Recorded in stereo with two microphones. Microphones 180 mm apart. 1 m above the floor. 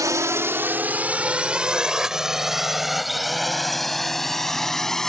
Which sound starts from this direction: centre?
A drone, at 0.0 s.